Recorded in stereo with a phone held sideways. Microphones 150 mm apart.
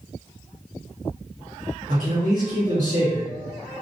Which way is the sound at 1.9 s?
65° right (ahead or behind).